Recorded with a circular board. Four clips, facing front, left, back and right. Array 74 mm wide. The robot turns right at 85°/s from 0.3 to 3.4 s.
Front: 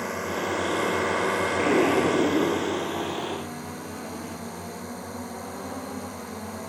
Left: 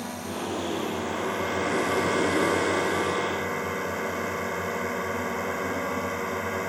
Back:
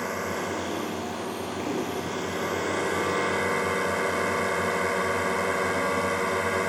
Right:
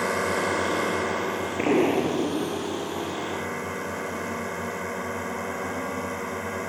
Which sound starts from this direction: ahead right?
An explosion, at 1.6 s.